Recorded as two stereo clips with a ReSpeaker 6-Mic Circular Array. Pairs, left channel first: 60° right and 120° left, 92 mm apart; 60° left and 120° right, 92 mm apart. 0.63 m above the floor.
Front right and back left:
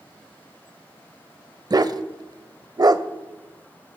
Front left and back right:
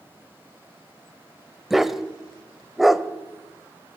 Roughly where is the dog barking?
Behind left.